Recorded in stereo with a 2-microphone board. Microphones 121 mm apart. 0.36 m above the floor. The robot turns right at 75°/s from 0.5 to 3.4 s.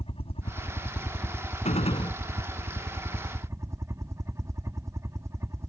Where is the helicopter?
115° left; by 5.7 s 25° right.